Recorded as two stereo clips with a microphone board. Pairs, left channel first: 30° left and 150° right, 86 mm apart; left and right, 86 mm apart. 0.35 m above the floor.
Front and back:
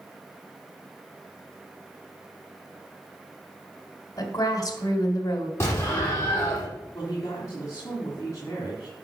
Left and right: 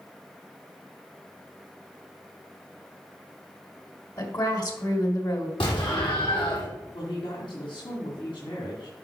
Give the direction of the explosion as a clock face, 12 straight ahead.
9 o'clock.